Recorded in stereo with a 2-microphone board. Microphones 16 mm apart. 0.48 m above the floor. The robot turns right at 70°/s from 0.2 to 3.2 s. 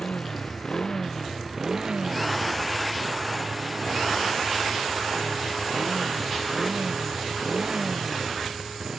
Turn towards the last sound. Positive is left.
turn(degrees=-55)